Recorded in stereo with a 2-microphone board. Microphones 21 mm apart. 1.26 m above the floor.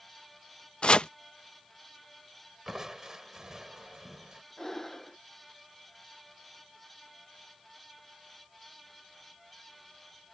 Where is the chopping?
50° left (ahead or behind).